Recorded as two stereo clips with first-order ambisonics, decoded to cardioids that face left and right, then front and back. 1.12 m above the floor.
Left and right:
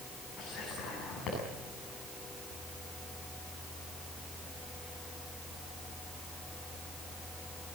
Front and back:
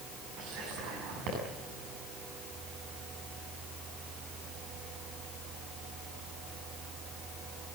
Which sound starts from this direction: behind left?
Whispering, at 0.4 s.